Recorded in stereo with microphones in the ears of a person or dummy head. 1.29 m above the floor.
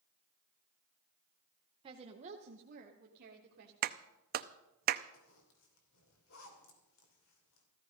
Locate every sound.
1.8 s a woman speaking: 25° right (ahead or behind), 0.8 m; by 3.7 s 55° right (ahead or behind), 1.7 m
3.8 s a clap: 45° right (ahead or behind), 0.5 m
5.1 s a zipper: 80° left, 3 m